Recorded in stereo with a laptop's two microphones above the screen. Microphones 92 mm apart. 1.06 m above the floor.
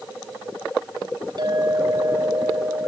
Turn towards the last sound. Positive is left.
turn(degrees=-50)  # may be behind; listen again after turning